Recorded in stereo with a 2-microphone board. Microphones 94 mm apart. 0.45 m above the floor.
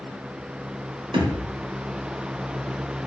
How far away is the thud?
About 1.0 m.